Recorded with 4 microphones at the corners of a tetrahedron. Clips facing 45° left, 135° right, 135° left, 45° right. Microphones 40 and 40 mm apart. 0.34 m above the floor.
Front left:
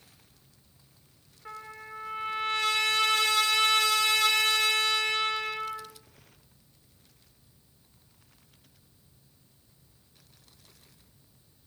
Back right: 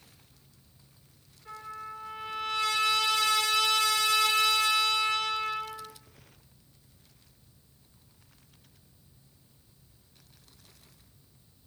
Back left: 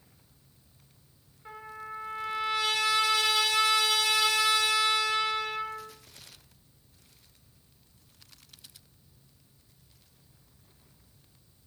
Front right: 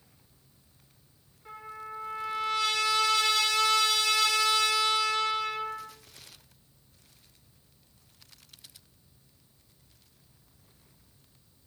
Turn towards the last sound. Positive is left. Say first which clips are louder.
# back right 2 dB, even
turn(degrees=70)